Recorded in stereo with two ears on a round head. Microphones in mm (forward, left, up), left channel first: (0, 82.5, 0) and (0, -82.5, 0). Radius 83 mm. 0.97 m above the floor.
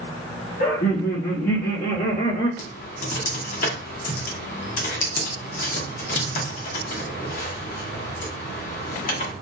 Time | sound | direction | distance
0.6 | laughter | 50° left (ahead or behind) | 0.8 m
2.6 | typing on a keyboard | 45° left (ahead or behind) | 0.9 m